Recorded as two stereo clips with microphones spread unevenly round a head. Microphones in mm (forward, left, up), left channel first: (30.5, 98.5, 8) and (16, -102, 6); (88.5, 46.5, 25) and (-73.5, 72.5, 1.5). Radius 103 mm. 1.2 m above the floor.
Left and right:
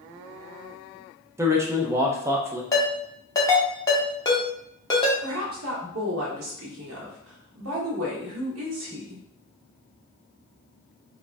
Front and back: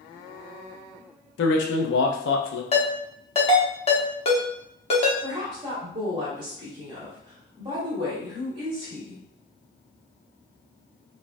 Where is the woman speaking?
120° right, 1.2 m.